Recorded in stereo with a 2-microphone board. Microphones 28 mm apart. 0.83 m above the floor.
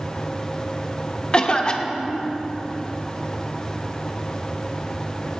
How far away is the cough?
About 0.8 m.